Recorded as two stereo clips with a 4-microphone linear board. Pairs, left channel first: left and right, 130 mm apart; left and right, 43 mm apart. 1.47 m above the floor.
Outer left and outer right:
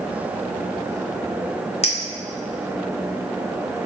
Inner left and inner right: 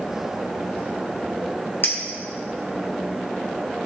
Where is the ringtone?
No ringtone in this recording.